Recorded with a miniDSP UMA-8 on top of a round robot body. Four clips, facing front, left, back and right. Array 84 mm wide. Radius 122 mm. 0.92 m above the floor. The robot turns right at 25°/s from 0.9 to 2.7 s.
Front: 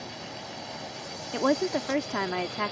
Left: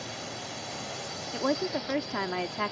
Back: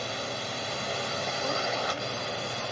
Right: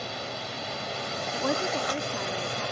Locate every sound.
0.0 s a drone: 160° right; by 2.7 s 115° right
1.3 s a woman speaking: straight ahead; by 2.7 s 35° left